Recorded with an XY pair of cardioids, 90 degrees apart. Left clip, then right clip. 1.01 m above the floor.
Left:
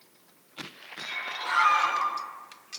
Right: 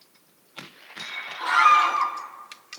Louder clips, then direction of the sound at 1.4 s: Right 6 dB; 30° right.